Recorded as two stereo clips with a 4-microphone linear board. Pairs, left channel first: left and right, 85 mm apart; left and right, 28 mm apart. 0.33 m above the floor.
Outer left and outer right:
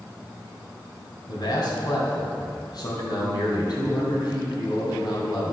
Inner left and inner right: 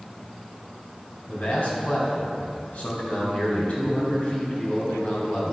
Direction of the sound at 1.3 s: 55° left (ahead or behind).